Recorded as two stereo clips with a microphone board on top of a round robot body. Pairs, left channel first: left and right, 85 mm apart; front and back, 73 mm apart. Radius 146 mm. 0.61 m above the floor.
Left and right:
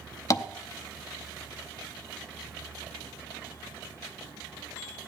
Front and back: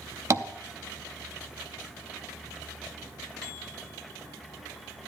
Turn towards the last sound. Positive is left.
turn(degrees=135)